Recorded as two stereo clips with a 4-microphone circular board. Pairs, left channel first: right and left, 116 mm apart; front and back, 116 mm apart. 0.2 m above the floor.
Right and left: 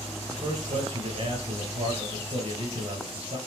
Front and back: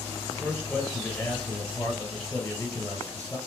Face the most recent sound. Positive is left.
turn(degrees=75)